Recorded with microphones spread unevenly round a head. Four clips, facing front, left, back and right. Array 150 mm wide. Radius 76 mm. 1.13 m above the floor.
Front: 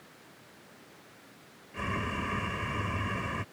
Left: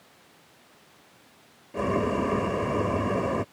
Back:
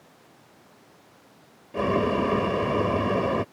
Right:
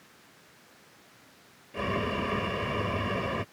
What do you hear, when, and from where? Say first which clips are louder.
1.7 s boiling: left 5 dB, back 12 dB; 155° left